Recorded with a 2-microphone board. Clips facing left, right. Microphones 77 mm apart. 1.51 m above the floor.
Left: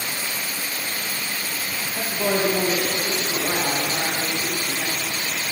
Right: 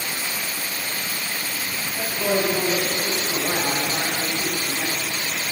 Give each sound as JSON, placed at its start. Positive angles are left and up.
{"t": 1.9, "sound": "a woman speaking", "side_deg": 30, "distance_m": 2.0}